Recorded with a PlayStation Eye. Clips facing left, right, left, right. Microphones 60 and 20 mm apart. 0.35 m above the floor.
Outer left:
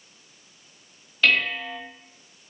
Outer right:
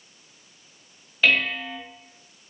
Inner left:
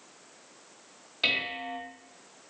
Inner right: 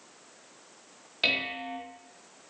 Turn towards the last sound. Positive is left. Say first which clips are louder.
# even, even
turn(degrees=-10)  # may be behind; listen again after turning